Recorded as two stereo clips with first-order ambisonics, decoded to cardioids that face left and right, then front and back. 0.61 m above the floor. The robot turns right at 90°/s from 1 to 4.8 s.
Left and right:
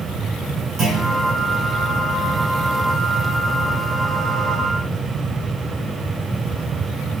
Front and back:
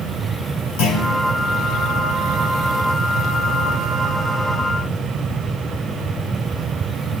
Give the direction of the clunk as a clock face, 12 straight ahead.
1 o'clock.